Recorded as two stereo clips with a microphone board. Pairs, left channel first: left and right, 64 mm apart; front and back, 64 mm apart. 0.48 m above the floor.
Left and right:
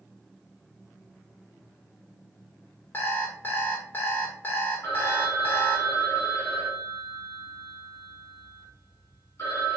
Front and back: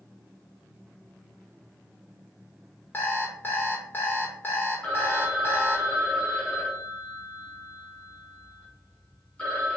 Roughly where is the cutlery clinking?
I don't hear cutlery clinking.